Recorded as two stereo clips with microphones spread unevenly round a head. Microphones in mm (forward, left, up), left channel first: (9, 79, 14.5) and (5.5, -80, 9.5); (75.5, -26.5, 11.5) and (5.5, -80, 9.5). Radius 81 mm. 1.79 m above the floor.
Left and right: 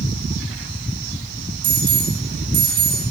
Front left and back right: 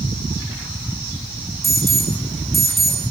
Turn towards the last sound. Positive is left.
turn(degrees=-50)